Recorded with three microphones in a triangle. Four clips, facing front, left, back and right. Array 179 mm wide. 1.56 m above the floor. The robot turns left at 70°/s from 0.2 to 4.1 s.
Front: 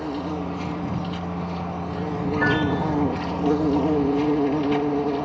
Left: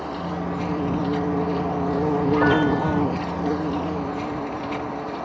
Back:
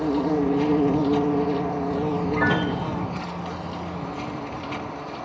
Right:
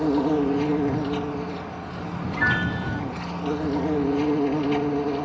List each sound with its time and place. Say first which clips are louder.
0.0 s an insect: right 7 dB, back 6 dB; 120° right; by 5.3 s 30° right
2.4 s a piano: left 4 dB, front 1 dB; 130° left; by 3.0 s 85° left